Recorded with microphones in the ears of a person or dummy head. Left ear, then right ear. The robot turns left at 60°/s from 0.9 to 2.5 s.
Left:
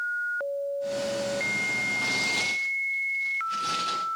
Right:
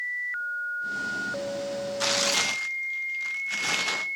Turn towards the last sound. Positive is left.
turn(degrees=-130)